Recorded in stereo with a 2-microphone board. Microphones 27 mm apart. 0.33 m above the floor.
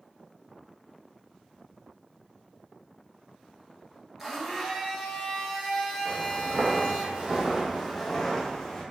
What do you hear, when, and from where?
4.2 s a blender: 10° right (ahead or behind), 1.1 m
6.0 s footsteps: 75° right (ahead or behind), 1.2 m; by 8.8 s 25° left (ahead or behind), 1.3 m